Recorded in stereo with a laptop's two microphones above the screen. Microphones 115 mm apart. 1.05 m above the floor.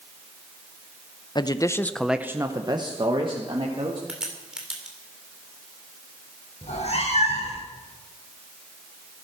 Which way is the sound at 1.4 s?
40° left (ahead or behind).